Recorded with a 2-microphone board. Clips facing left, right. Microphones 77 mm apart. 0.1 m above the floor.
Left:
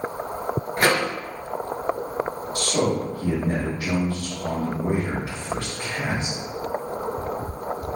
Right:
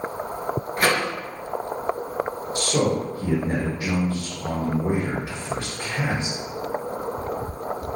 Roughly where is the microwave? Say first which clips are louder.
Left 1 dB; left.